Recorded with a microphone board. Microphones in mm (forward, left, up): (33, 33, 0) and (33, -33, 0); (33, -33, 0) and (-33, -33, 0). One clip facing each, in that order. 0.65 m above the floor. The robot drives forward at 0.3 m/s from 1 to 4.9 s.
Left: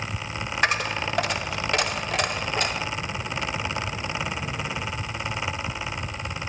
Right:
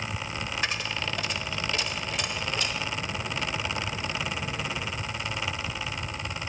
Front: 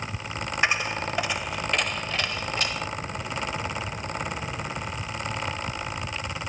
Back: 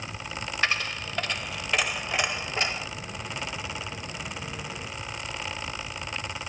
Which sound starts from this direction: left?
A dropped coin, at 0.6 s.